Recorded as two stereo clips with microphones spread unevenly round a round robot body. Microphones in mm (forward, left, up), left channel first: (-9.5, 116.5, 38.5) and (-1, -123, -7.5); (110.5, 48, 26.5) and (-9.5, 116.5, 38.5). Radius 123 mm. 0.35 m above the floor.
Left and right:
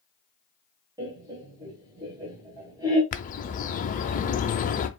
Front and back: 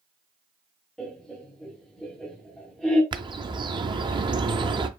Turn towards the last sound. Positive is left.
turn(degrees=135)